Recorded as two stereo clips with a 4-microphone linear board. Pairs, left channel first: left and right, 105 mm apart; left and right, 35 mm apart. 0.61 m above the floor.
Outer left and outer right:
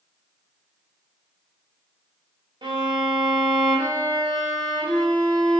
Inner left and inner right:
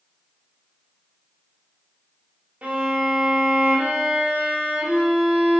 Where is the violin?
50° right (ahead or behind), 0.8 m.